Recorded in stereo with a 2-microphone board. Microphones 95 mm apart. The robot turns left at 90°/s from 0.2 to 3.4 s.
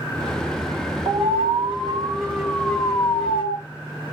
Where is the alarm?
55° right, 2.5 m; by 3.6 s 95° left, 2.5 m.